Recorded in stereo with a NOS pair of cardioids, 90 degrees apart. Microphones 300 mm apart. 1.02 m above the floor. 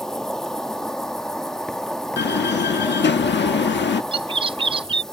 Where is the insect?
Straight ahead.